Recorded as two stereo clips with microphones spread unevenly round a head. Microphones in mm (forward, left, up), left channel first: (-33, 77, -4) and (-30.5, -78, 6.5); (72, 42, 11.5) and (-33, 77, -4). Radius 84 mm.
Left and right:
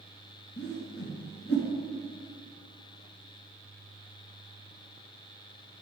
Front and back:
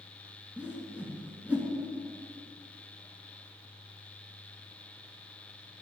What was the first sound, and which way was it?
A whoosh, 80° left.